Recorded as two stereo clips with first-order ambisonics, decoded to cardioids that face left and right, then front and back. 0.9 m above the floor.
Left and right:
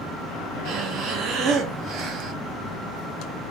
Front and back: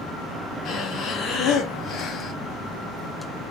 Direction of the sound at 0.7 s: 50° right.